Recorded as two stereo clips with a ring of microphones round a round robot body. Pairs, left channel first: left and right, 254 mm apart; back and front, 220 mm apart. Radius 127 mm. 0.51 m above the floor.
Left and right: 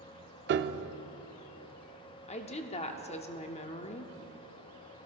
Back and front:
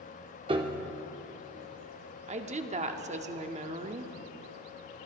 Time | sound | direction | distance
0.5 | a piano | 60° right | 0.5 m
2.3 | a woman speaking | 40° left | 0.8 m